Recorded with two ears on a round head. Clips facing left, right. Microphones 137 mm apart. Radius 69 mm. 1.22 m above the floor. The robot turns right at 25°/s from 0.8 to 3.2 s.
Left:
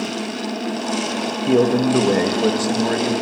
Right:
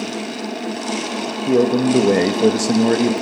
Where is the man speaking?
Straight behind, 1.3 m; by 3.1 s 135° right, 1.3 m.